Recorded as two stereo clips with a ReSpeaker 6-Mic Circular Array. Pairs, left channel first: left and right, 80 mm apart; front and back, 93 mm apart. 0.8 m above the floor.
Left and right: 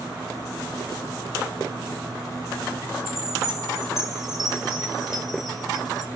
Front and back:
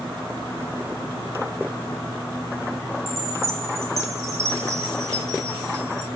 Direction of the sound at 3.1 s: 170° right.